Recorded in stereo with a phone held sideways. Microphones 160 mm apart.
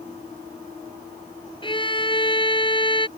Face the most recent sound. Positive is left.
turn(degrees=30)  # may be behind; listen again after turning